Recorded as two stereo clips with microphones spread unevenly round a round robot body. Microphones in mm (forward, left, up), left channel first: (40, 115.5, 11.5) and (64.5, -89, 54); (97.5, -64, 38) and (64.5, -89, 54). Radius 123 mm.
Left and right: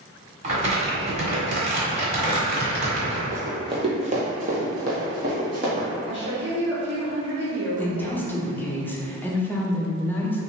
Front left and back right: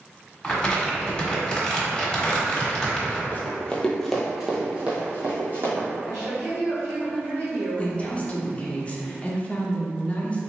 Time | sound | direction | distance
0.4 | crumpling | 25° right | 1.4 m
3.3 | running footsteps | 25° right | 0.9 m
6.0 | a woman speaking | 140° right | 1.9 m
7.8 | a woman speaking | 30° left | 0.7 m